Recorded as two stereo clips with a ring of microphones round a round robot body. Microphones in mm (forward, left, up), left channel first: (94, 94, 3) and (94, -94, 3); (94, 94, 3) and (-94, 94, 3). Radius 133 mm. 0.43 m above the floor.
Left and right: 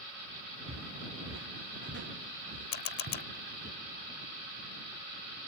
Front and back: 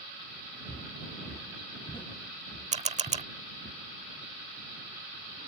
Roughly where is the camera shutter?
Behind left.